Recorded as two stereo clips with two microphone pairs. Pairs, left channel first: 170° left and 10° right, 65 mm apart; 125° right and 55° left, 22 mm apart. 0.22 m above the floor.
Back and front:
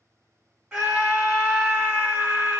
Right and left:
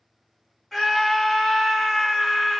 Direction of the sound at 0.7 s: 75° right.